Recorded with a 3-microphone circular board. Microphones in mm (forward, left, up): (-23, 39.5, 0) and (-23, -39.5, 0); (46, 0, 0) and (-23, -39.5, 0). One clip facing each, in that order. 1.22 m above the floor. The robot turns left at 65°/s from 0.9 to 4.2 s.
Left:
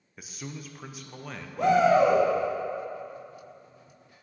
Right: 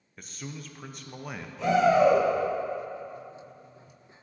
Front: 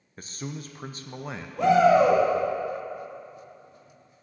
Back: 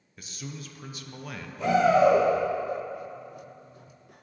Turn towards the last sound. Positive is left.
turn(degrees=-115)